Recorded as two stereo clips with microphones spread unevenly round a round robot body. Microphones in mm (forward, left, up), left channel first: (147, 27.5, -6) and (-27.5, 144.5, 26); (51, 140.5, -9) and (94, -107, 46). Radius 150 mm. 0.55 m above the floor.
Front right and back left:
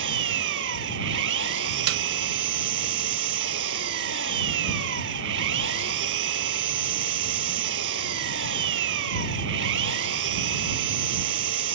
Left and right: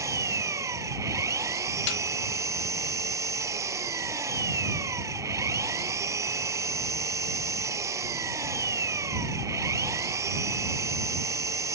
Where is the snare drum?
140° left.